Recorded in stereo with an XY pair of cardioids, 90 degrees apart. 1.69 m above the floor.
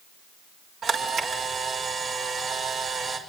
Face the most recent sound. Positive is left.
turn(degrees=-65)